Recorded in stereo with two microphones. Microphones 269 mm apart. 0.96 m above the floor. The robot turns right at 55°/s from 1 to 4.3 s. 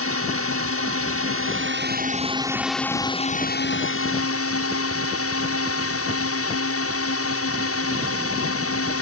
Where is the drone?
95° right; by 9.0 s 85° left.